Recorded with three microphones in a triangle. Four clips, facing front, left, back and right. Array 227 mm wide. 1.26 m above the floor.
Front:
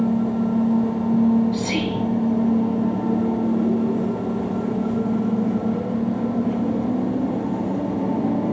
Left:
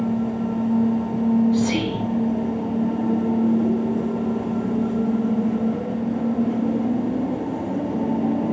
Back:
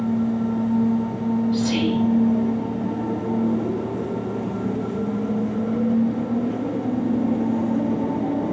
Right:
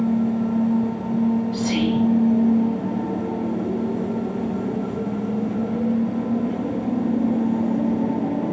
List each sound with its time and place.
1.5 s whispering: 80° left, 0.7 m